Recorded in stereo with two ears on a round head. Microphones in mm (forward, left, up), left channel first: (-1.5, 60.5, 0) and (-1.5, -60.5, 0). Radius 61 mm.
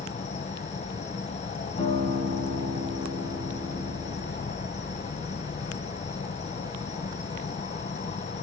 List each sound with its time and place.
0.0 s an insect: 55° left (ahead or behind), 1.3 m
1.8 s a guitar: 45° left (ahead or behind), 6.5 m